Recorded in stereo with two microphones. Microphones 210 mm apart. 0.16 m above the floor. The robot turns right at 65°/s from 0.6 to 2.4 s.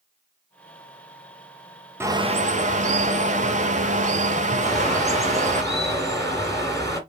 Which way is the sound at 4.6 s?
15° left (ahead or behind).